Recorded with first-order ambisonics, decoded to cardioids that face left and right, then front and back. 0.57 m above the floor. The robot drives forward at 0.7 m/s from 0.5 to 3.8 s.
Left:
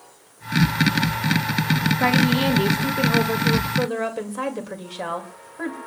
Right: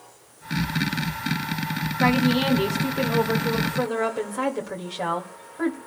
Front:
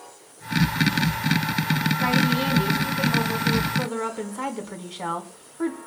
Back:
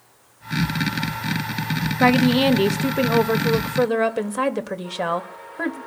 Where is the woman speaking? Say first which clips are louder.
Even, back 8 dB; 175° left, 0.8 m; by 5.8 s straight behind, 1.9 m.